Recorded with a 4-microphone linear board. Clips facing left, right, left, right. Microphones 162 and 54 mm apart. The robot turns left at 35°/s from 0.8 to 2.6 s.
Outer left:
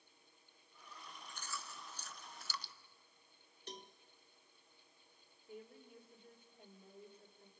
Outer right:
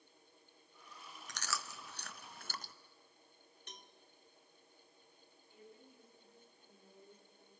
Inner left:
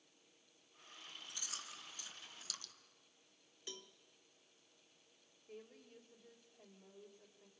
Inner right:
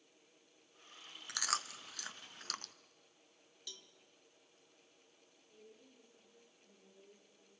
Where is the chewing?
85° right, 0.7 m; by 2.7 s 45° right (ahead or behind), 0.7 m.